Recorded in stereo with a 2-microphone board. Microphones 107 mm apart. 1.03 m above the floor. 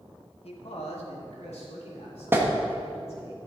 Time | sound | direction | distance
0.4 | a man speaking | 65° left (ahead or behind) | 1.4 m
2.3 | a clap | 20° right (ahead or behind) | 1.4 m